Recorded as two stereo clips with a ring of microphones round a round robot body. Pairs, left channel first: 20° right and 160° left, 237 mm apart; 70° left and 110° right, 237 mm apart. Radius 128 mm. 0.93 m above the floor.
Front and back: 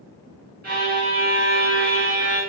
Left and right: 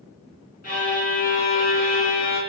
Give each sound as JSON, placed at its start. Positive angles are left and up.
{"t": 0.6, "sound": "a violin", "azimuth_deg": 115, "distance_m": 1.2}